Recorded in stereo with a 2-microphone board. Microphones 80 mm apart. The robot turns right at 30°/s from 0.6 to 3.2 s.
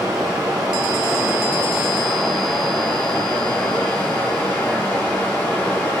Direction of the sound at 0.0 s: 55° right.